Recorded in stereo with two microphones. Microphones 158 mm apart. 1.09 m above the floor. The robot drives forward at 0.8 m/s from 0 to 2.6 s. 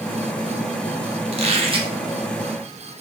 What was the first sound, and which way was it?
A squeak, 40° right (ahead or behind).